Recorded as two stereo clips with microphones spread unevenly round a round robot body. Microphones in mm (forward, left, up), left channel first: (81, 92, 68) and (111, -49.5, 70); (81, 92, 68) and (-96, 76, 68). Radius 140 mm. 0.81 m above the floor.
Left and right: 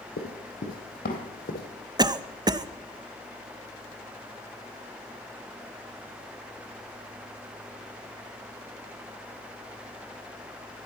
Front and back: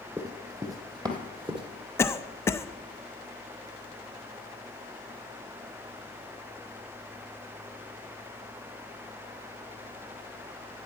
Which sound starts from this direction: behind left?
Running footsteps, at 0.2 s.